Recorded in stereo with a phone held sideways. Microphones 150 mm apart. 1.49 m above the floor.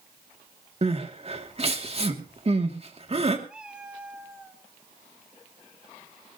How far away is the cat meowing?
About 2.5 m.